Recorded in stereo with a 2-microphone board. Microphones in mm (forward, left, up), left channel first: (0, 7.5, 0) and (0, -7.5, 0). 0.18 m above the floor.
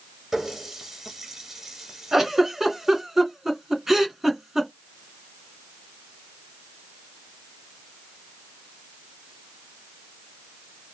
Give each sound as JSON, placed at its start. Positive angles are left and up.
{"t": 0.3, "sound": "a running tap", "side_deg": -35, "distance_m": 1.9}
{"t": 2.1, "sound": "a giggle", "side_deg": -25, "distance_m": 2.5}